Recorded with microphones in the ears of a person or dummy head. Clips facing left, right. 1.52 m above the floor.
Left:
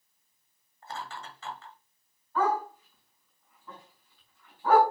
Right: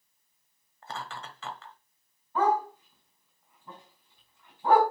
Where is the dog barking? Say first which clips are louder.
Right 2 dB; 20° right (ahead or behind), 4.5 m.